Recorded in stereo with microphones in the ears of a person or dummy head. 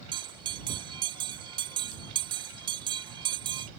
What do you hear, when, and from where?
0.1 s a bell: 20° right (ahead or behind)